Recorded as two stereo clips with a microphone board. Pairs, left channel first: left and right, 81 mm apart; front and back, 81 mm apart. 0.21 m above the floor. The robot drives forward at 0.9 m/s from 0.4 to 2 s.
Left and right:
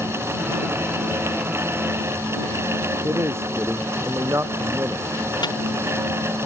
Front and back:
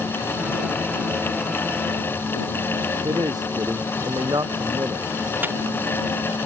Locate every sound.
3.0 s a man speaking: 145° right
5.4 s a dropped coin: 115° left